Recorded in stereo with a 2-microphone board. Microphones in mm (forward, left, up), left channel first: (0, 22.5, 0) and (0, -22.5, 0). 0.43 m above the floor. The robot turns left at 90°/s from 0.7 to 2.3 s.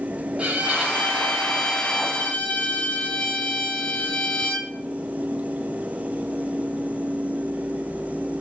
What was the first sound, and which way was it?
A violin, 30° right (ahead or behind).